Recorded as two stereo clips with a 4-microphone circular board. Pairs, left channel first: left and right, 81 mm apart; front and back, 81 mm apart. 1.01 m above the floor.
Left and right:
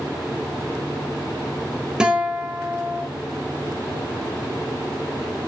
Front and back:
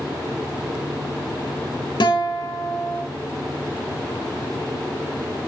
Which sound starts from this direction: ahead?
A guitar, at 2.0 s.